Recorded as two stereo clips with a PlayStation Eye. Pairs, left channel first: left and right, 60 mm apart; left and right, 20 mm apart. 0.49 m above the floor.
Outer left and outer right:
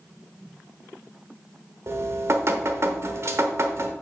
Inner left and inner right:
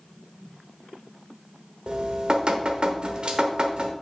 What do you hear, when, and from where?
1.9 s dripping: 55° right (ahead or behind), 0.9 m